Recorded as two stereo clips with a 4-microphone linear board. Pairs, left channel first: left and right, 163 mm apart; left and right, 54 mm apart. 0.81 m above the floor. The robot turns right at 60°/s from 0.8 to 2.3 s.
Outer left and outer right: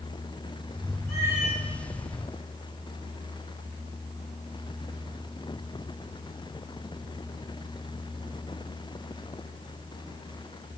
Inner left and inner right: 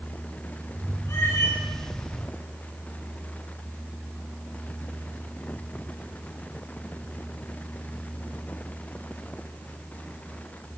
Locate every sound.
1.1 s a cat meowing: 80° left, 4 m; by 1.6 s 110° left, 4 m